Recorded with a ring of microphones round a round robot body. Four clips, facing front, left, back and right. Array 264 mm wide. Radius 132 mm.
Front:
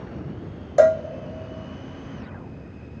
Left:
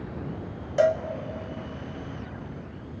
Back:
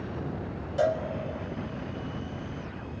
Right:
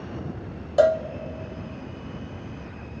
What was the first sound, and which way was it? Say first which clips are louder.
A cowbell: right 3 dB, front 10 dB; 20° right.